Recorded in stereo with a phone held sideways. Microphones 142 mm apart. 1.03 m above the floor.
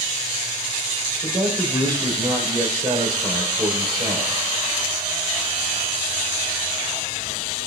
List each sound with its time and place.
1.2 s a man speaking: 30° right (ahead or behind), 3.5 m